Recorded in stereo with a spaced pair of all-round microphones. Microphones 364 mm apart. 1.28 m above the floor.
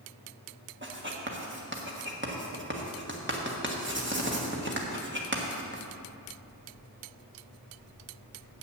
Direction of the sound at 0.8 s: 30° right (ahead or behind).